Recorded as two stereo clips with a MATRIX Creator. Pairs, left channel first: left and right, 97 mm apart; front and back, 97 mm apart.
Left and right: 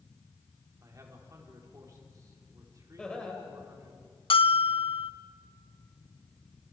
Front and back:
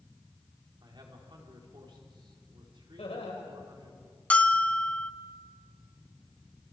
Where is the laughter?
5° left, 5.5 m.